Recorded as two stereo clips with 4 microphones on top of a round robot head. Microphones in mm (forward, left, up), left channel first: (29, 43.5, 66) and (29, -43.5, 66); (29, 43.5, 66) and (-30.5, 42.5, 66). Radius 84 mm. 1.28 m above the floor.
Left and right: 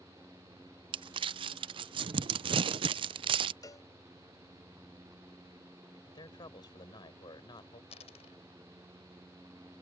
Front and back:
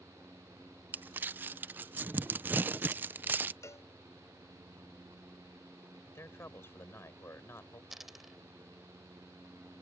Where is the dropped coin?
100° left.